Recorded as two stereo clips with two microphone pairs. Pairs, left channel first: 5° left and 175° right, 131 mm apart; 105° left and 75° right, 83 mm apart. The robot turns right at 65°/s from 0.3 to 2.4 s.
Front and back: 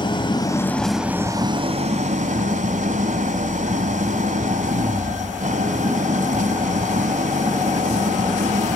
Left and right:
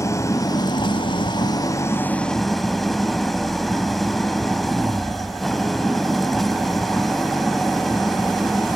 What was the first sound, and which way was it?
An engine running, 55° left.